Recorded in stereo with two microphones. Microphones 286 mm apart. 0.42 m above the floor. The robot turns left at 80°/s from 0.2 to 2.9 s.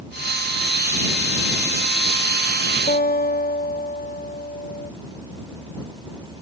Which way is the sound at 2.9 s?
30° left (ahead or behind).